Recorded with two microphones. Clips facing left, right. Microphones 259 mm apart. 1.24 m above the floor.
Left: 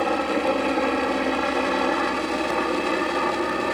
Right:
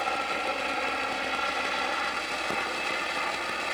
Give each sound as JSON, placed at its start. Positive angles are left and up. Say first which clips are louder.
{"t": 0.0, "sound": "a helicopter", "louder": "left 12 dB", "side_deg": 60}